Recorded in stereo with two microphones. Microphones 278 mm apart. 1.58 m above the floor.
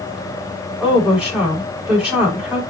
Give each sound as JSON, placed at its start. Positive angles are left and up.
{"t": 0.8, "sound": "a woman speaking", "side_deg": -5, "distance_m": 5.5}